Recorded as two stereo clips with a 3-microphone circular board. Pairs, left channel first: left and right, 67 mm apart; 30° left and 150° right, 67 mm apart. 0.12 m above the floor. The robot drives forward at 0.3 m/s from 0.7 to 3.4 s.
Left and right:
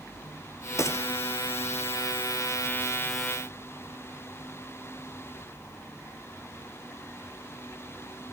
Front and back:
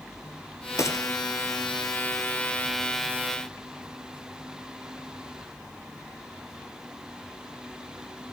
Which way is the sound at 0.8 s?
60° left.